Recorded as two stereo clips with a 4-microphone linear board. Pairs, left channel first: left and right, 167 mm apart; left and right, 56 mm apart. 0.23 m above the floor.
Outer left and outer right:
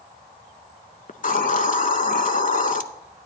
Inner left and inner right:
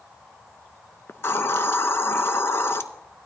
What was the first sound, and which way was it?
A hiss, 50° left (ahead or behind).